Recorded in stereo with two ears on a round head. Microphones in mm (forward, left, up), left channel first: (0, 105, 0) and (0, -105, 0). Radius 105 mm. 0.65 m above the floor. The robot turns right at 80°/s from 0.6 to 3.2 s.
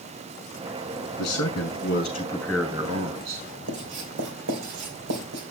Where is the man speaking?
75° left, 5.5 m; by 3.5 s 120° right, 5.5 m.